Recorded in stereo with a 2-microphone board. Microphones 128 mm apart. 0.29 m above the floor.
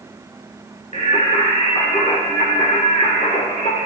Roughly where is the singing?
Left.